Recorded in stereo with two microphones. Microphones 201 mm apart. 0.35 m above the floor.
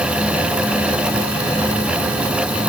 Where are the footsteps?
No footsteps in this recording.